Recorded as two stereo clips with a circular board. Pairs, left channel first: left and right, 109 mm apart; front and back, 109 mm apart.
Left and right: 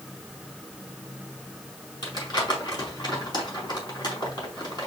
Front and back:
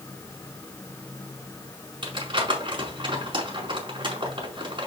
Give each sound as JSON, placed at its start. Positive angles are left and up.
{"t": 2.0, "sound": "crumpling", "azimuth_deg": 135, "distance_m": 4.5}